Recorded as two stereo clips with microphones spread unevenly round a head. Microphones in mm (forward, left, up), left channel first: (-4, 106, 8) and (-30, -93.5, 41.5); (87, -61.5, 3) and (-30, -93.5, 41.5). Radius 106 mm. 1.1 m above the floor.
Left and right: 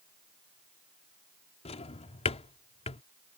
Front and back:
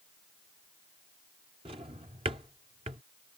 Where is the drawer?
145° left.